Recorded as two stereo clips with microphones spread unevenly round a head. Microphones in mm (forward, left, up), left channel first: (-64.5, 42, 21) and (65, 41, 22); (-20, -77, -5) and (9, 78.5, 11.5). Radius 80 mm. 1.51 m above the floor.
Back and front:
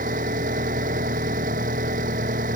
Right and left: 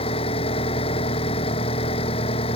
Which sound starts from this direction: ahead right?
An engine running, at 0.0 s.